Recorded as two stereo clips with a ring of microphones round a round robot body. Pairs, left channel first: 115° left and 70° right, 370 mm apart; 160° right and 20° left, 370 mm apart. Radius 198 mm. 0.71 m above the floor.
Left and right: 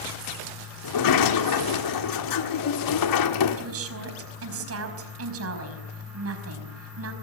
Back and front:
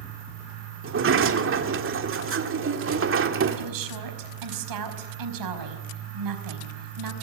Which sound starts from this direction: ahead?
A woman speaking, at 3.6 s.